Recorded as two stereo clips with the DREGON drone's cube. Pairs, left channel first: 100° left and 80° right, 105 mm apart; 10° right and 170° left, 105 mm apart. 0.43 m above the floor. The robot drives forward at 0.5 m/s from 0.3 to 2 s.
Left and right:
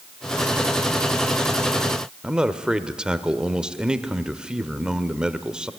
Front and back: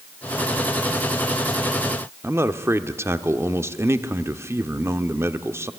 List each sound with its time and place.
2.2 s a man speaking: 150° right, 1.1 m